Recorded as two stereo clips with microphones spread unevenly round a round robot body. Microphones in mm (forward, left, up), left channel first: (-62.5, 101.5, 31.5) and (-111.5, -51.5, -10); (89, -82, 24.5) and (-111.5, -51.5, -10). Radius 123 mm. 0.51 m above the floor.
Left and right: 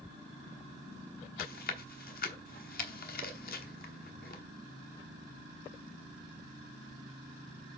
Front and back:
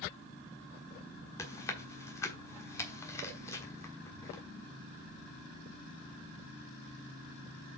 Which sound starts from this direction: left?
Chewing, at 1.4 s.